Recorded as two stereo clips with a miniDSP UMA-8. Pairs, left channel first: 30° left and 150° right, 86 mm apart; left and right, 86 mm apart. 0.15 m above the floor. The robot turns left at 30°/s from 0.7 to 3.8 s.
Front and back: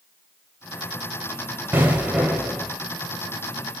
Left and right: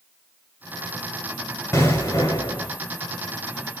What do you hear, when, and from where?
1.7 s an explosion: 145° left, 1.5 m; by 2.7 s 115° left, 1.5 m